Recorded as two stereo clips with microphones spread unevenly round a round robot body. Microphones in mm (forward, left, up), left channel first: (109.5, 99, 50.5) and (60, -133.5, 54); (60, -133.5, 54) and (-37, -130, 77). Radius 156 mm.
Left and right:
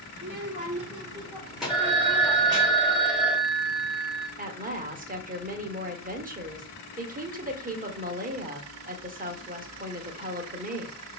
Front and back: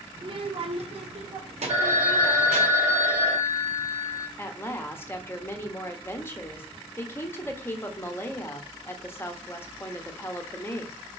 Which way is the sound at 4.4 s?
55° right.